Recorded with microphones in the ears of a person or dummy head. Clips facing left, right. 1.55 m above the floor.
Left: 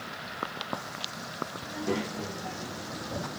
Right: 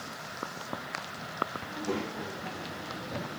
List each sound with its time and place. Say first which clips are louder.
1.6 s a child speaking: left 4 dB; 20° left (ahead or behind), 1.6 m